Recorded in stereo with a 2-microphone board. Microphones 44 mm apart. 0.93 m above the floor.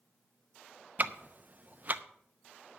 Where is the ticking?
40° right (ahead or behind), 0.7 m.